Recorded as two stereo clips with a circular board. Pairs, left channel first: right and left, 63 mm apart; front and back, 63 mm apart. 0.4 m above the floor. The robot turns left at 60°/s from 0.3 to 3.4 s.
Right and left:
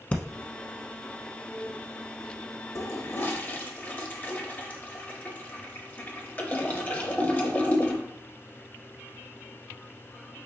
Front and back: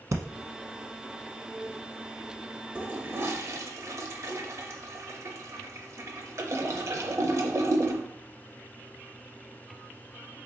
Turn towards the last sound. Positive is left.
turn(degrees=-150)